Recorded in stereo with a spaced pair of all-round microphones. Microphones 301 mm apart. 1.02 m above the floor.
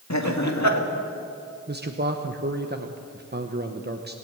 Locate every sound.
0.1 s laughter: 60° left (ahead or behind), 2 m
1.7 s a man speaking: 30° right (ahead or behind), 0.9 m